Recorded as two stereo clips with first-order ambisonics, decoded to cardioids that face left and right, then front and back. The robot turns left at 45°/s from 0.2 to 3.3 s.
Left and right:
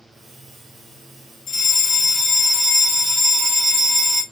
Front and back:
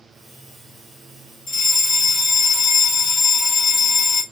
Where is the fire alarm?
45° left, 1.7 m; by 4.2 s 40° right, 1.7 m.